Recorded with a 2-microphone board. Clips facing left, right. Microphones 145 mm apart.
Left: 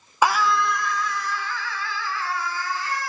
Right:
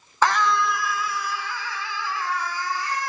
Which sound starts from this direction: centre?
A scream, at 0.2 s.